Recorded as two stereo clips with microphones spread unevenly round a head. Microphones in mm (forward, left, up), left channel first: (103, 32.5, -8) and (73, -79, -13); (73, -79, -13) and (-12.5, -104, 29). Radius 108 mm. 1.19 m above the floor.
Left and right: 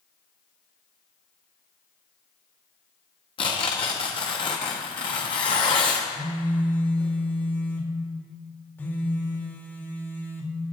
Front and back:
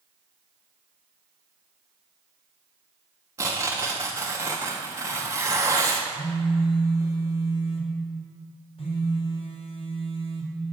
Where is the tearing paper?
135° left, 0.9 m.